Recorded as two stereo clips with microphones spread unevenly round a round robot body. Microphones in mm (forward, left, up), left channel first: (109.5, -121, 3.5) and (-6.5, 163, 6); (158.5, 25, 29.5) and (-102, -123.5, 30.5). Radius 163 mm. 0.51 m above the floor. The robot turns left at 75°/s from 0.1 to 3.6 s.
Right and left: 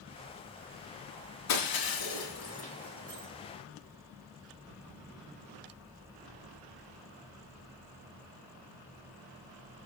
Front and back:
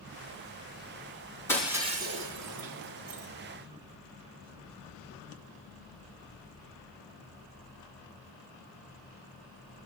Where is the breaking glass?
50° right, 3 m; by 3.3 s 175° left, 3 m.